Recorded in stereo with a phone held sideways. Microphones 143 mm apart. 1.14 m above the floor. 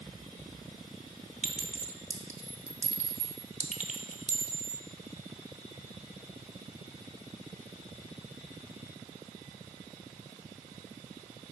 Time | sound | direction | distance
1.4 | a clink | 55° right (ahead or behind) | 0.8 m